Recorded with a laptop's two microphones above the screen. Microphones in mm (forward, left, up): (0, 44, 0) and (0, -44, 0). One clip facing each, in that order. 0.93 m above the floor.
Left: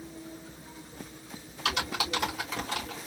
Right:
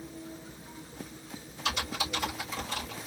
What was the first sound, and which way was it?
Typing on a keyboard, 70° left (ahead or behind).